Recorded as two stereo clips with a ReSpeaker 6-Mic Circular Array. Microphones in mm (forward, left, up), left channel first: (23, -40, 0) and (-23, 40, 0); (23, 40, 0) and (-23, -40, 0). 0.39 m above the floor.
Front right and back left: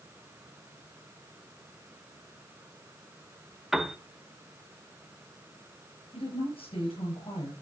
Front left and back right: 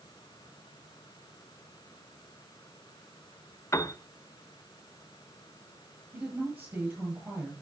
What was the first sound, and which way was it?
A piano, 35° left.